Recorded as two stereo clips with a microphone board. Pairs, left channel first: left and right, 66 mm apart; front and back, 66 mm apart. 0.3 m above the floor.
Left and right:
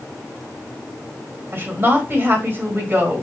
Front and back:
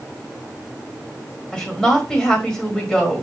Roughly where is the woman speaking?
Right.